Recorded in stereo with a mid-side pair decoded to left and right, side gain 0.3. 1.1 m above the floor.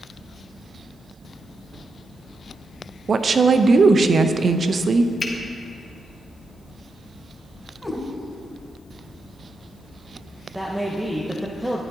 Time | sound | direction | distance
3.1 | a woman speaking | 60° right | 0.6 m
5.2 | a finger snap | 35° left | 1.7 m
7.8 | a cat meowing | 5° left | 2.5 m
10.5 | a man speaking | 10° right | 1.0 m